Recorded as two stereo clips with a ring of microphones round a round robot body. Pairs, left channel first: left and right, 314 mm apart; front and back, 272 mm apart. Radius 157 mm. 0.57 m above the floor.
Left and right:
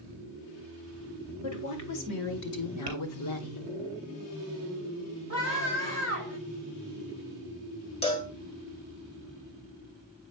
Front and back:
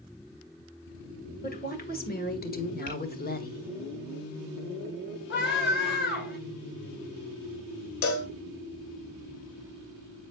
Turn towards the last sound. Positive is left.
turn(degrees=15)